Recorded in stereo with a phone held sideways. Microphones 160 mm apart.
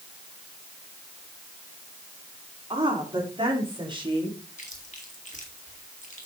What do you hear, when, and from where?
2.7 s a woman speaking: 35° right (ahead or behind), 4.5 m; by 4.4 s 30° right (ahead or behind), 3 m
4.6 s chewing: 50° left (ahead or behind), 2.5 m